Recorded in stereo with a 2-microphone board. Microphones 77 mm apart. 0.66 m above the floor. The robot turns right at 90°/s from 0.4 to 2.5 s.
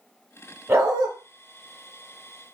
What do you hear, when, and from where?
0.7 s a dog barking: 145° right, 0.9 m; by 1.1 s 110° right, 0.9 m